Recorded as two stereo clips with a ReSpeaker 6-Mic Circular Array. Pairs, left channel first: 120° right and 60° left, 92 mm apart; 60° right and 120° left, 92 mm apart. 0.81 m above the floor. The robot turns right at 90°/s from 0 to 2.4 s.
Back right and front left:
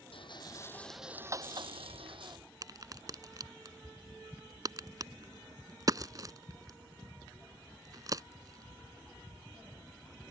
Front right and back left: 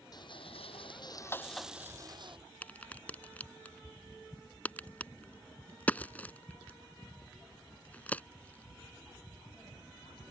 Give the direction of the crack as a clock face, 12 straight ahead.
12 o'clock.